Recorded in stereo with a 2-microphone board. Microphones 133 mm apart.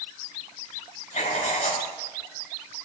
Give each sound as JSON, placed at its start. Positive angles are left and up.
{"t": 1.1, "sound": "writing", "side_deg": 60, "distance_m": 3.0}